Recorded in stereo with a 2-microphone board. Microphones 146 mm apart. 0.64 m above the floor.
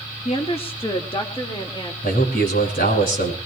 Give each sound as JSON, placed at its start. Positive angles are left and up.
{"t": 0.2, "sound": "a woman speaking", "side_deg": 40, "distance_m": 1.2}
{"t": 2.0, "sound": "a man speaking", "side_deg": 85, "distance_m": 6.0}